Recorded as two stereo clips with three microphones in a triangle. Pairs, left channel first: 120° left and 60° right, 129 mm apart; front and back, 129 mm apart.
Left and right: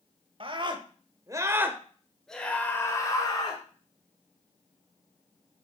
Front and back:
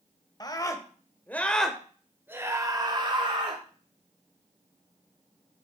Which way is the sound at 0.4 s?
40° right.